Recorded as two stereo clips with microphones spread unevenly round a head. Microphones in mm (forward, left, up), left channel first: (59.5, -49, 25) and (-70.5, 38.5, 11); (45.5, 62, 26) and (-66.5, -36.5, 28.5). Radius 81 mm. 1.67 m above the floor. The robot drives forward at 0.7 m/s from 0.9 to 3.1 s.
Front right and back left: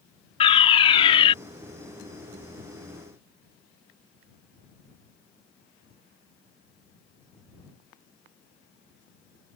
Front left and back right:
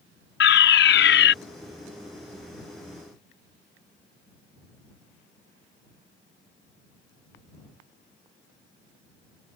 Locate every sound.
0.4 s a fire alarm: 25° left